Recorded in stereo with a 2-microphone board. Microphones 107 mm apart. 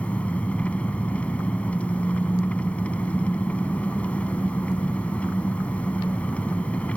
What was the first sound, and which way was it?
An engine running, 15° left (ahead or behind).